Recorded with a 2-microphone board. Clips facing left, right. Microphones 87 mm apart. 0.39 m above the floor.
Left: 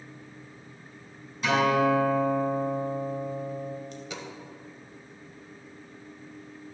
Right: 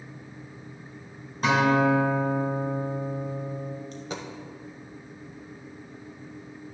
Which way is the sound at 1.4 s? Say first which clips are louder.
Right 2 dB; 35° right (ahead or behind).